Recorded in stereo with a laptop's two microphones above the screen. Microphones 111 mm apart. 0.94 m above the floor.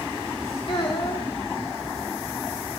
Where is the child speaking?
50° left (ahead or behind), 1.9 m.